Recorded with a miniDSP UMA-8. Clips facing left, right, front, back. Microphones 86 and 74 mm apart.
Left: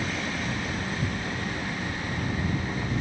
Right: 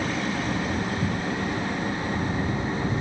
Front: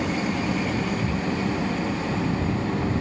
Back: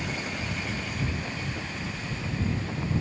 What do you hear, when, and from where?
0.0 s an engine running: 25° right